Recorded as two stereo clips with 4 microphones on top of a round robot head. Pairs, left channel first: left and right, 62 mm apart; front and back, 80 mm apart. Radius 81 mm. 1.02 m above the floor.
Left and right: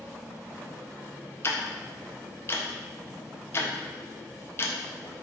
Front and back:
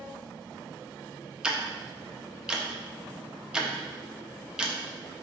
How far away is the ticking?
About 0.8 m.